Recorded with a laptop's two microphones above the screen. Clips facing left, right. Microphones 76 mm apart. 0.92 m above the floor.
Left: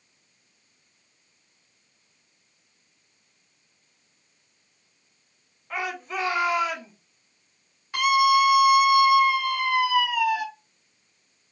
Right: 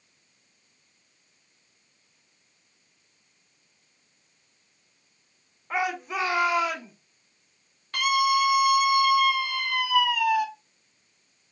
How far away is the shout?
About 1.1 m.